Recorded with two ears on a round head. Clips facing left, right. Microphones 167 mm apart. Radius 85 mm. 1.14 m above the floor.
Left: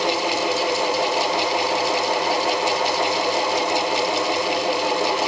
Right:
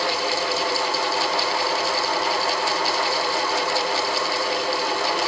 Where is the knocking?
I don't hear knocking.